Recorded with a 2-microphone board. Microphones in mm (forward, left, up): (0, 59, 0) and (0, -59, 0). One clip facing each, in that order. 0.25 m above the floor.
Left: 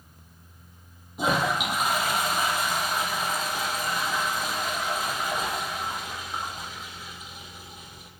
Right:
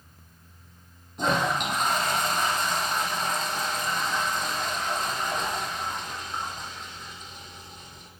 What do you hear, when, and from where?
1.2 s a toilet flushing: 10° left (ahead or behind), 4 m